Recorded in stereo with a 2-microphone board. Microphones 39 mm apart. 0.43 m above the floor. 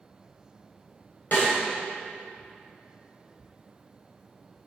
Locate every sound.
1.3 s a snare drum: 55° left (ahead or behind), 2.5 m